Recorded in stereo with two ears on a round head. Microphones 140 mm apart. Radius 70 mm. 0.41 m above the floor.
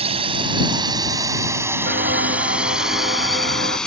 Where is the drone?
40° right (ahead or behind); by 3.9 s 5° left (ahead or behind).